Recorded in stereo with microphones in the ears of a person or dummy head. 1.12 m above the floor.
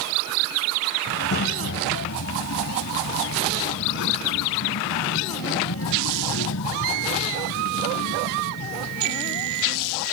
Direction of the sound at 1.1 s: 60° left (ahead or behind).